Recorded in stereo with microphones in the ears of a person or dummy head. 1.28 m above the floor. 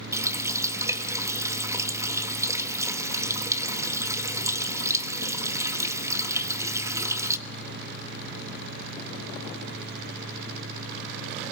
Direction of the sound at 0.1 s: 15° right (ahead or behind).